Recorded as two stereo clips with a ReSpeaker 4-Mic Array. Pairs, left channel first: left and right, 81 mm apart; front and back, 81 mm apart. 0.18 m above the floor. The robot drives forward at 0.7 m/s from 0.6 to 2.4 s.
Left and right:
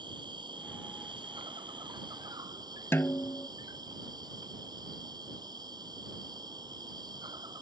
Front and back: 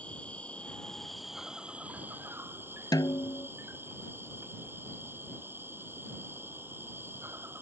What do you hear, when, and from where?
0.0 s an insect: 75° right; by 7.6 s 120° right
2.9 s a snare drum: 30° left